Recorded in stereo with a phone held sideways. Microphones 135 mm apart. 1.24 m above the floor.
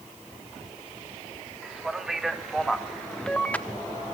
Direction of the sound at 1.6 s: 5° right (ahead or behind).